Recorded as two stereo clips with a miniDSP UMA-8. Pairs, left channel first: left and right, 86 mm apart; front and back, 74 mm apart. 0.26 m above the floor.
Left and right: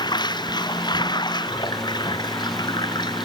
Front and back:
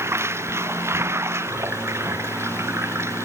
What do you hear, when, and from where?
0.0 s running water: 125° left